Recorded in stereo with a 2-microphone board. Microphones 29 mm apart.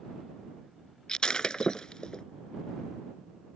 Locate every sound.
1.1 s breaking glass: 25° left (ahead or behind)